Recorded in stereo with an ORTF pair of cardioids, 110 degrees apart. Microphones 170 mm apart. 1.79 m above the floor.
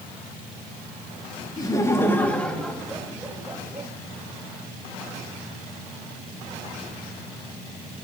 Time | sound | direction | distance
1.6 | laughter | 25° left | 2 m